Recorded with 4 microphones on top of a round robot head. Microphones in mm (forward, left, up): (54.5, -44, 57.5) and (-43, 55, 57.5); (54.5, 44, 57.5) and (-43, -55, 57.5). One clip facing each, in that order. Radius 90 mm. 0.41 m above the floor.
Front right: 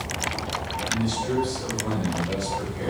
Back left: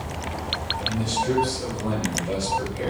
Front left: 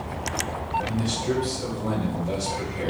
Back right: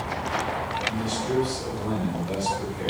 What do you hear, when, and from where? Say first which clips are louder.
0.8 s a man speaking: back left 2 dB, front left 1 dB; 80° left, 2.5 m